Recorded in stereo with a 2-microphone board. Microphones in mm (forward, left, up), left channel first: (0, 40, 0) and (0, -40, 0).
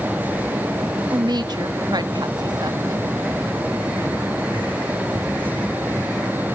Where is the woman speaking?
60° right (ahead or behind), 1.4 m.